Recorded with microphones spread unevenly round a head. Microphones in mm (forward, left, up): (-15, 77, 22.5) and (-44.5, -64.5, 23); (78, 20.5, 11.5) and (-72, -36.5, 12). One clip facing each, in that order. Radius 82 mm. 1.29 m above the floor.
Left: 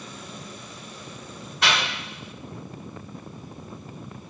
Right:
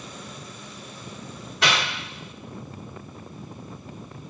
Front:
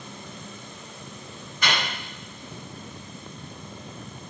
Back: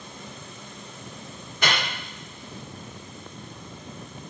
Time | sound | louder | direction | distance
1.6 | a microwave | right 1 dB, back 1 dB | 120° right | 1.7 m